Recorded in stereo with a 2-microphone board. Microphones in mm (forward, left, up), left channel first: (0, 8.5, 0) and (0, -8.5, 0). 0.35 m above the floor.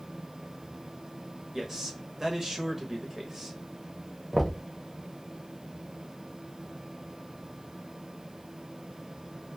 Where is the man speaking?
30° right (ahead or behind), 1.0 m.